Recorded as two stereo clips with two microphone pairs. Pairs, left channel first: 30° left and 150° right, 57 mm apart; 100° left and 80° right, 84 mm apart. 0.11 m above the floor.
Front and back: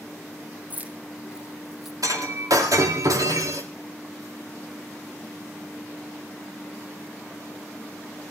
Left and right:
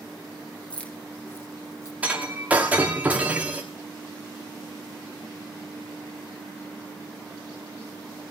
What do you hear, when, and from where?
0.7 s keys jangling: 170° left, 1.4 m; by 1.9 s 120° left, 1.3 m
2.0 s breaking glass: 155° right, 6 m